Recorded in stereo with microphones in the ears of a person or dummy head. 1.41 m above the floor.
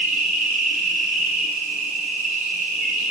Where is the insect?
45° right (ahead or behind), 6.5 m.